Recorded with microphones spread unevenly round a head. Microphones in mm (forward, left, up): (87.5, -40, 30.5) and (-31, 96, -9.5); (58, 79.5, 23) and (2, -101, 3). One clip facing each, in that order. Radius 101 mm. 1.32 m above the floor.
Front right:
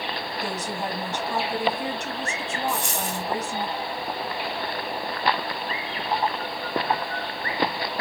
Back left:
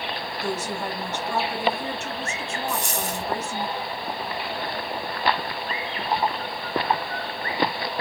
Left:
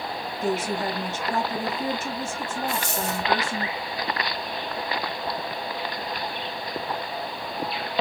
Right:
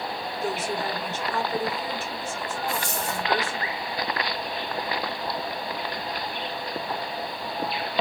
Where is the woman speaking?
25° left, 3 m.